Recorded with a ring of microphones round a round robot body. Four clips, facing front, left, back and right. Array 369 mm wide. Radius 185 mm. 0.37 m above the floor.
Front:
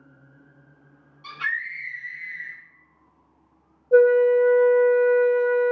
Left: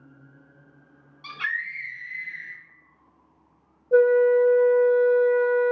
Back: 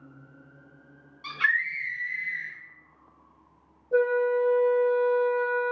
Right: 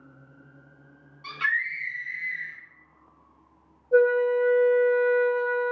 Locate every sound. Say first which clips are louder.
1.2 s a scream: right 3 dB, back 3 dB; 115° left, 1.7 m
3.9 s a flute: left 3 dB, front 8 dB; 45° left, 0.6 m